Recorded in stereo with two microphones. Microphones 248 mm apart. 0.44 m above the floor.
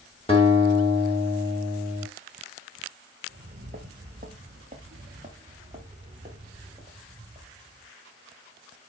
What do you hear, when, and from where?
0.3 s a guitar: 20° left (ahead or behind), 3.5 m
3.3 s footsteps: 40° right (ahead or behind), 1.8 m; by 7.9 s 20° right (ahead or behind), 5 m